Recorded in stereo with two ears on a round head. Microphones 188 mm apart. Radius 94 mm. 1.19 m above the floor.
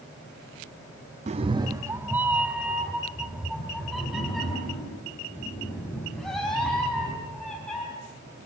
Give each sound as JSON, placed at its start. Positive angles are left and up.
{"t": 1.3, "sound": "a cat meowing", "side_deg": -30, "distance_m": 0.6}